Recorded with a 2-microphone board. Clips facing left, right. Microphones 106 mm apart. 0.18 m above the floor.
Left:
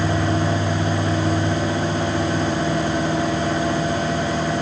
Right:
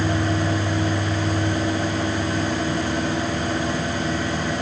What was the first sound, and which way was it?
Only background noise.